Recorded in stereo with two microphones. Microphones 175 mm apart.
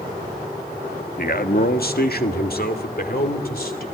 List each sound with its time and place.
1.2 s a man speaking: 60° left (ahead or behind), 1.2 m; by 3.8 s 65° left (ahead or behind), 3 m